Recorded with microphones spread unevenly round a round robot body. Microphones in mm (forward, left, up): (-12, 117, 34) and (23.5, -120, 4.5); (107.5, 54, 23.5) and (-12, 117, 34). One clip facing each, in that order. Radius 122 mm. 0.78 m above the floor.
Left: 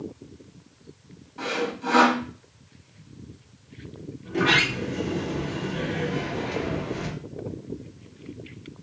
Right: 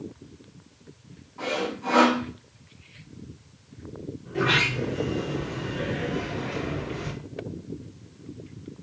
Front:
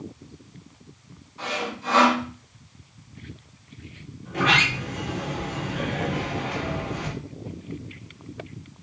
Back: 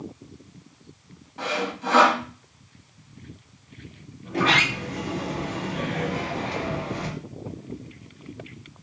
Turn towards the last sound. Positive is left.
turn(degrees=100)